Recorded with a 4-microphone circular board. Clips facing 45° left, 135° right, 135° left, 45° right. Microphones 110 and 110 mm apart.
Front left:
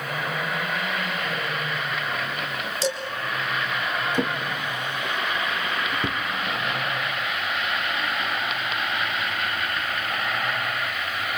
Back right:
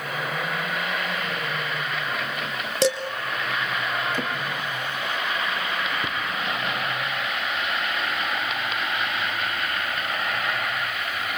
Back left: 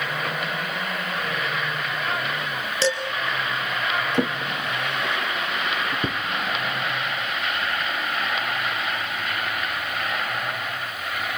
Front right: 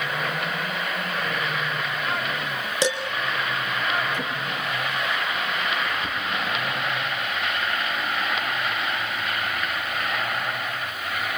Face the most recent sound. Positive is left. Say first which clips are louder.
# front left 2 dB, back left 4 dB
turn(degrees=120)